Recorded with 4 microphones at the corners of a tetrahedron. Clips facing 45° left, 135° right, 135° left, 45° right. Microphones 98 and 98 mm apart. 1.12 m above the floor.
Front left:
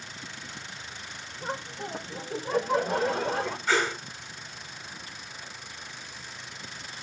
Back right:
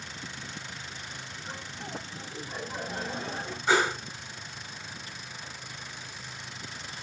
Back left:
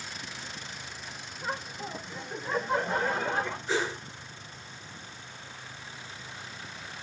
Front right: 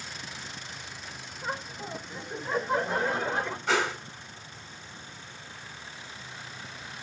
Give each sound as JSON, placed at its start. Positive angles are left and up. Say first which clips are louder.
{"t": 1.4, "sound": "laughter", "louder": "front left 9 dB, even", "azimuth_deg": 45, "distance_m": 4.0}
{"t": 3.7, "sound": "a whoosh", "louder": "back right 3 dB, front right 5 dB", "azimuth_deg": -65, "distance_m": 4.5}